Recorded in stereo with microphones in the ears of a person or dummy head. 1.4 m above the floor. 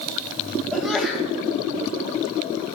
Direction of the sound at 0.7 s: Centre (ahead or behind).